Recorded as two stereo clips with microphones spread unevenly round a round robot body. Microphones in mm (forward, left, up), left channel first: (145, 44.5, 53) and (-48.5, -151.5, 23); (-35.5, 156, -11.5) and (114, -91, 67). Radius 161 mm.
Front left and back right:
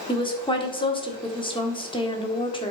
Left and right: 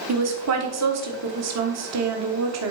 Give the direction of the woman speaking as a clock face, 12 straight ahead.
1 o'clock.